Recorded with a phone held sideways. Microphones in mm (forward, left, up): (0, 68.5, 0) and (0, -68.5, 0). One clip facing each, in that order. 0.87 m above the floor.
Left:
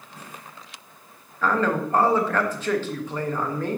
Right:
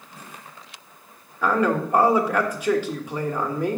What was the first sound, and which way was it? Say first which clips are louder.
A man speaking: right 2 dB; 15° right (ahead or behind).